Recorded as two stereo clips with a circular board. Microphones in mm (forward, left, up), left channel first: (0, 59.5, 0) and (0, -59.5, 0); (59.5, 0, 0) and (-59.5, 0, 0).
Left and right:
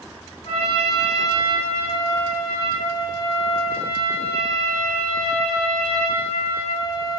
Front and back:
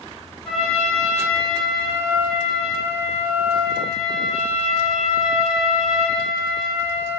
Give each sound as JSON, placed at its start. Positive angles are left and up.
{"t": 0.5, "sound": "a trumpet", "azimuth_deg": 85, "distance_m": 3.5}